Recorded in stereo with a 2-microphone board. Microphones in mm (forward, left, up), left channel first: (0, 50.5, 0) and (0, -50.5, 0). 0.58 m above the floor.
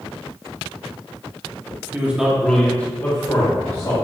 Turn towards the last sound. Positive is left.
turn(degrees=40)  # may be behind; listen again after turning